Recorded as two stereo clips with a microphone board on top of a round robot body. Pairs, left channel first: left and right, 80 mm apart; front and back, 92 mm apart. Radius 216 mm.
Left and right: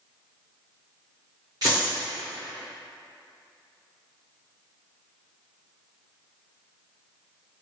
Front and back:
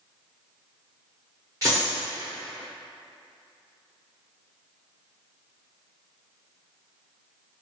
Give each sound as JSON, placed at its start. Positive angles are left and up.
{"t": 1.6, "sound": "a dropped coin", "azimuth_deg": -60, "distance_m": 0.9}